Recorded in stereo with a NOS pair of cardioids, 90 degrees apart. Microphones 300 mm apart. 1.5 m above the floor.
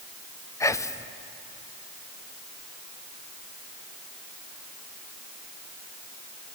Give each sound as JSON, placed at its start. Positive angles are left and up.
{"t": 0.6, "sound": "whispering", "azimuth_deg": 10, "distance_m": 0.6}